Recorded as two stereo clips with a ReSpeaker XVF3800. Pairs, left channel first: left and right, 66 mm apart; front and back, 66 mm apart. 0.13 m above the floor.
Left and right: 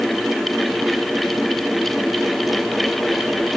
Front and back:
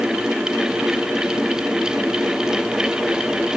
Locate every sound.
Only background noise.